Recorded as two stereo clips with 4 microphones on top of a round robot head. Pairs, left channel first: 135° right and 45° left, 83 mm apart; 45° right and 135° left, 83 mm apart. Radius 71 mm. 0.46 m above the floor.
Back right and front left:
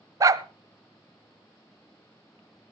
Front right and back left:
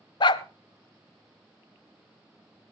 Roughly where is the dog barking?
Ahead.